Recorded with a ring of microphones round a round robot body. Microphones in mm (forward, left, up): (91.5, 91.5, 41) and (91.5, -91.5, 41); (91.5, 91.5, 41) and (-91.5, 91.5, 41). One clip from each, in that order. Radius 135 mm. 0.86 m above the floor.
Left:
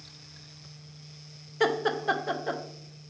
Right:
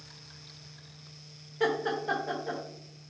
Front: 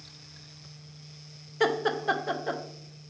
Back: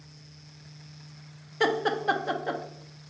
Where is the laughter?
90° left, 0.5 m.